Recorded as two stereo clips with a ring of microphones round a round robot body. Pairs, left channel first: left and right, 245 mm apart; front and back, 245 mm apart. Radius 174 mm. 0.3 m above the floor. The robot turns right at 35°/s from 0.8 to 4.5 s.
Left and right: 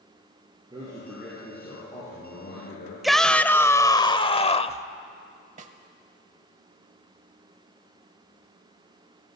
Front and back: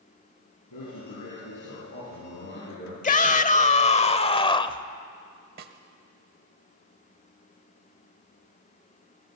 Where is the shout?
Straight ahead, 1.0 m; by 4.9 s 50° left, 1.0 m.